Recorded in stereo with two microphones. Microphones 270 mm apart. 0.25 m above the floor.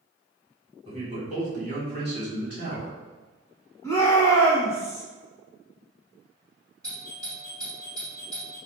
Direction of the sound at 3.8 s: 10° left (ahead or behind).